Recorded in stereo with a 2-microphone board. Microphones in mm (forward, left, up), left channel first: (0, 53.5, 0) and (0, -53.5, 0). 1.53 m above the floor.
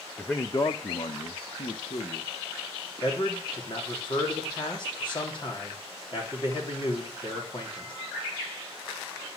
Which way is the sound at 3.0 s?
45° left (ahead or behind).